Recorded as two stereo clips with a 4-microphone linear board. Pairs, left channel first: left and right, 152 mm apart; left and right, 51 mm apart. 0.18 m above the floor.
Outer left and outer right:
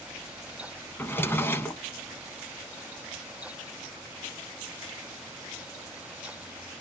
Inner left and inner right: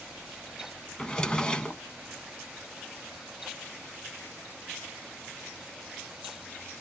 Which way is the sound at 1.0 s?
15° left (ahead or behind).